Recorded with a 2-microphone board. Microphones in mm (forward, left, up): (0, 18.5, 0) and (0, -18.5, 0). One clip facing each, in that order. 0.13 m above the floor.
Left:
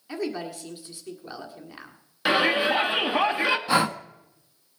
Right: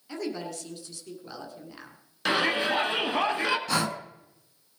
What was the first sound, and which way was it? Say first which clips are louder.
A woman speaking: left 3 dB; 20° left (ahead or behind).